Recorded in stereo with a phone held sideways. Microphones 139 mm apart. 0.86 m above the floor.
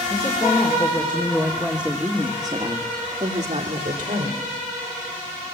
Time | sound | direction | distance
0.1 | a woman speaking | 25° left (ahead or behind) | 3.5 m